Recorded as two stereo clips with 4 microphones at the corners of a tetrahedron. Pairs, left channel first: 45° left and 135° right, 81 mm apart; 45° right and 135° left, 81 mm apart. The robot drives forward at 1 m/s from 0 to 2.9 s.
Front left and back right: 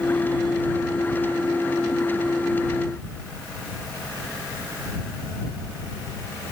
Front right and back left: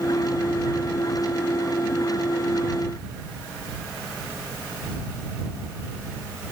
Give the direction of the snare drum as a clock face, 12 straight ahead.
No snare drum in this recording.